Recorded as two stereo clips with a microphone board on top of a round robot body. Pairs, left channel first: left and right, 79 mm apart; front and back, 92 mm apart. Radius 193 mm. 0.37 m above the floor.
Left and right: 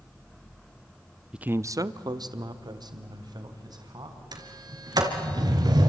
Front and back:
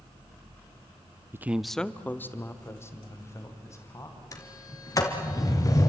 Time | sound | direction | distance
1.3 | a man speaking | 160° right | 0.8 m
4.3 | a sliding door | 55° right | 2.5 m